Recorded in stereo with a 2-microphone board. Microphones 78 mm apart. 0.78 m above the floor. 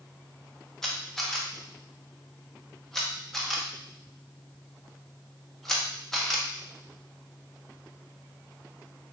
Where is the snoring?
I don't hear snoring.